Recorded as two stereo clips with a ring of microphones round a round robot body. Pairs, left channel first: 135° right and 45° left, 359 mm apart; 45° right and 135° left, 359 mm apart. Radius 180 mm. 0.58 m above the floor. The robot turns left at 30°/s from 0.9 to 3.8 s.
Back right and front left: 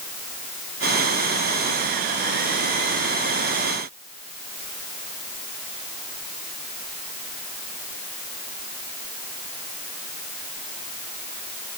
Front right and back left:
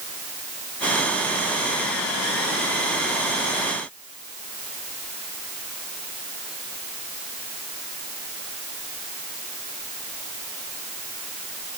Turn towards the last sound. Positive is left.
No sound to turn to.